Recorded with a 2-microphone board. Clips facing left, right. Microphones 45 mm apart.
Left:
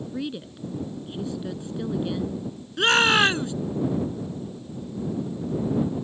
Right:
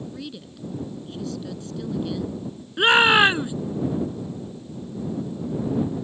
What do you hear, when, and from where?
0.1 s a woman speaking: 20° left (ahead or behind)
2.8 s a shout: 15° right (ahead or behind)